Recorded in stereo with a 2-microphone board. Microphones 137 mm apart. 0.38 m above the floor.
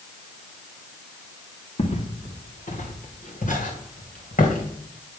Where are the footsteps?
55° left (ahead or behind), 1.6 m; by 4.7 s 80° left, 3 m.